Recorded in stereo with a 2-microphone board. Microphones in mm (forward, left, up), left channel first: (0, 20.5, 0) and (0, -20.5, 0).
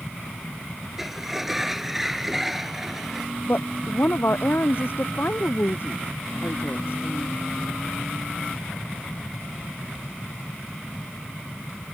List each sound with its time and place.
1.0 s a sliding door: 5° right (ahead or behind)
3.5 s a woman speaking: 55° left (ahead or behind)